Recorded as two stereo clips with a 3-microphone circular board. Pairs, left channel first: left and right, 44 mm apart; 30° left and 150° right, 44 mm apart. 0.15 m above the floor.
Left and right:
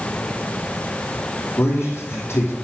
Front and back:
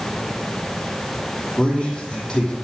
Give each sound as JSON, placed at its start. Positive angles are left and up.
{"t": 1.6, "sound": "a man speaking", "azimuth_deg": 105, "distance_m": 5.0}